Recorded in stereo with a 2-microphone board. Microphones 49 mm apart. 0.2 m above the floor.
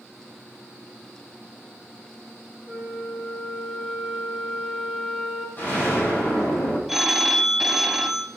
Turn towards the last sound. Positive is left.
turn(degrees=-5)  # may be behind; listen again after turning